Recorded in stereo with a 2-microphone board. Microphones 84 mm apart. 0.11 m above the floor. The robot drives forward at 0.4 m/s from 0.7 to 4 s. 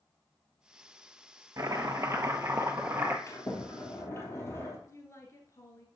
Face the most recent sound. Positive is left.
turn(degrees=35)  # may be behind; listen again after turning